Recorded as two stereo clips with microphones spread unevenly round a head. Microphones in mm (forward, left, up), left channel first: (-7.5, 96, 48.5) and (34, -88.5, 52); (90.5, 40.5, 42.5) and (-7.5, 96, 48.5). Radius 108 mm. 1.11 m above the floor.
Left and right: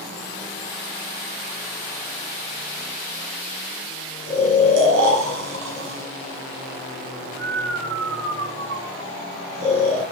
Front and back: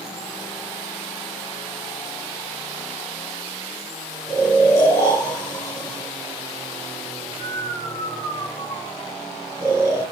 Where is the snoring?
105° right, 7 m.